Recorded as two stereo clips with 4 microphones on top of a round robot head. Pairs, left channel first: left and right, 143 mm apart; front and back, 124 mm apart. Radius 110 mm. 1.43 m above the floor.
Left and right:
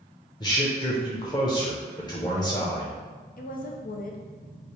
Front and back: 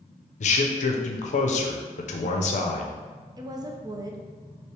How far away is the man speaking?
About 0.5 m.